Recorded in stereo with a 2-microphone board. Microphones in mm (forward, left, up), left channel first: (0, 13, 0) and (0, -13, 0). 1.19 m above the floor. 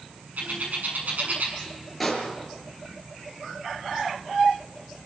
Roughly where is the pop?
Centre.